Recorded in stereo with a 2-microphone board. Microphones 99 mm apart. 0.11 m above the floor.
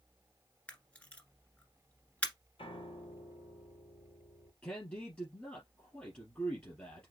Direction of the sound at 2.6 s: 60° left (ahead or behind).